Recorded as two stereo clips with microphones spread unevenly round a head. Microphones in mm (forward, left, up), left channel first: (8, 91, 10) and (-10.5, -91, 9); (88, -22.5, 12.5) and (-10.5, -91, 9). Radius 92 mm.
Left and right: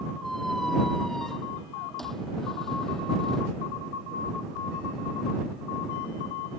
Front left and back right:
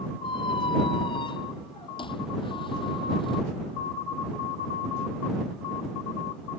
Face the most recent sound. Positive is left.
turn(degrees=-5)